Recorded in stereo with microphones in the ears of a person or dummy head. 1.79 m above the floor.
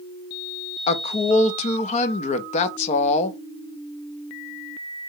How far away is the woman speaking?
About 0.7 m.